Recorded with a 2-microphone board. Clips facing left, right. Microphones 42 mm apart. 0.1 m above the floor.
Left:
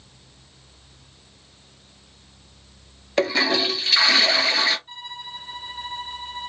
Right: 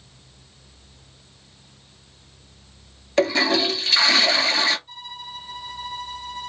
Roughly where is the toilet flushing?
Centre.